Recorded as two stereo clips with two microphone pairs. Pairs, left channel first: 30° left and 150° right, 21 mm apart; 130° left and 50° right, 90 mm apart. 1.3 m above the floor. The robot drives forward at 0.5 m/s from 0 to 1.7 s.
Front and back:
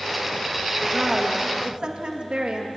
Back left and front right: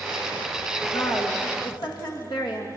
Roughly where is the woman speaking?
Behind left.